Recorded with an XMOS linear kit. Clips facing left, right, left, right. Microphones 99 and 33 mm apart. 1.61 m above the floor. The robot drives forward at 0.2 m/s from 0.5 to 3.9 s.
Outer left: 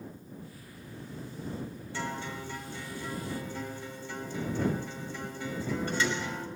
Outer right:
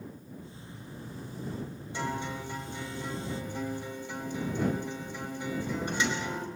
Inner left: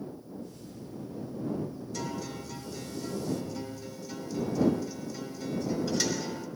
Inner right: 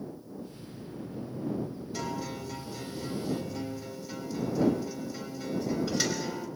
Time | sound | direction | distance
1.9 | a guitar | 15° right (ahead or behind) | 4.5 m